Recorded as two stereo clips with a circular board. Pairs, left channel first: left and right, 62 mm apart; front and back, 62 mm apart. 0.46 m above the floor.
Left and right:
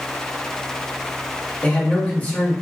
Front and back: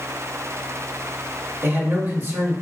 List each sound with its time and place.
1.6 s a man speaking: 140° left, 1.8 m